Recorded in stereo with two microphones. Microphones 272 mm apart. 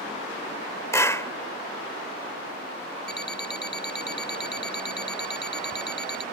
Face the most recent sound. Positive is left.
turn(degrees=40)  # may be behind; listen again after turning